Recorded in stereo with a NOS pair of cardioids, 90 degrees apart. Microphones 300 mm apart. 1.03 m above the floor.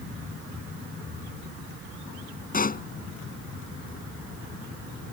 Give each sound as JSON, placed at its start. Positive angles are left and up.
{"t": 2.5, "sound": "a pop", "azimuth_deg": 30}